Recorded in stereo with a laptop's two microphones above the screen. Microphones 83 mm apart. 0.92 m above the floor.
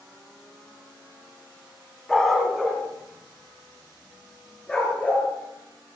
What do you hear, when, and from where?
2.1 s a dog barking: 5° left (ahead or behind), 2.0 m; by 5.3 s 15° left (ahead or behind), 4.5 m